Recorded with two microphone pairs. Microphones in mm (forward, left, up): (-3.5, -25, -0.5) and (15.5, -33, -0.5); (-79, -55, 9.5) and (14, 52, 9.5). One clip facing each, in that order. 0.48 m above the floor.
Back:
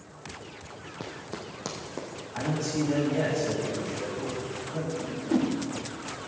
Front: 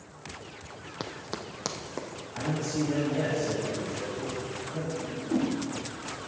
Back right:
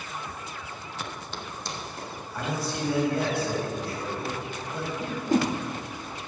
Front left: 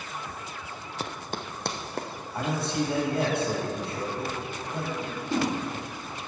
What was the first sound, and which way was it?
Running footsteps, 5° right.